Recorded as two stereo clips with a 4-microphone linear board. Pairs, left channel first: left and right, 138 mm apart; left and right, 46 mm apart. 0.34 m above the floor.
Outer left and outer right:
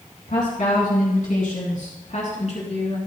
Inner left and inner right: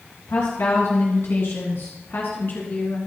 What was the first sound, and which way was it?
A woman speaking, 70° left (ahead or behind).